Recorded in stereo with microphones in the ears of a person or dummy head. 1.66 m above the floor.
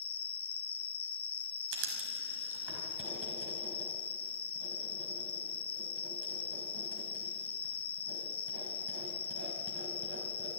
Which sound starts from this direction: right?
Writing, at 1.7 s.